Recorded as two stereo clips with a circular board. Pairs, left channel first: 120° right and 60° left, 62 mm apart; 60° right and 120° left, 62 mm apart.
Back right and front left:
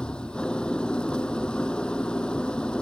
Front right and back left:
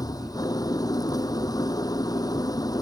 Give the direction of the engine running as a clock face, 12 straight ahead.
2 o'clock.